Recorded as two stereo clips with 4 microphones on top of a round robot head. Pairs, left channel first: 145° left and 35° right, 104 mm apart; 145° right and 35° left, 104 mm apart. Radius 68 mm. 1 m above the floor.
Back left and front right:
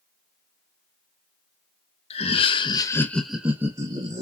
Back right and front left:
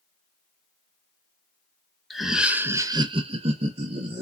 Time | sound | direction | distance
2.1 | laughter | 125° left | 1.2 m